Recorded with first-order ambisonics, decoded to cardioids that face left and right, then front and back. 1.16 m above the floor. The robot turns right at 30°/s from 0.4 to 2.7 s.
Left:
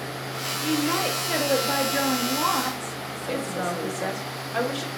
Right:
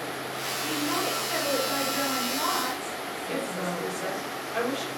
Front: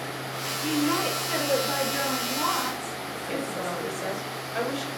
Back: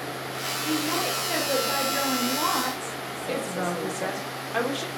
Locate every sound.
0.6 s a woman speaking: 75° left, 0.9 m; by 4.3 s 135° left, 0.9 m
3.3 s a woman speaking: 155° left, 1.1 m